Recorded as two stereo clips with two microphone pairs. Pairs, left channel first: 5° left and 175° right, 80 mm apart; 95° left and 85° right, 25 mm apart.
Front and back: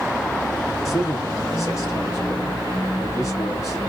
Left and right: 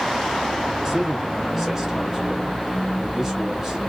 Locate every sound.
0.8 s a man speaking: 20° right, 1.6 m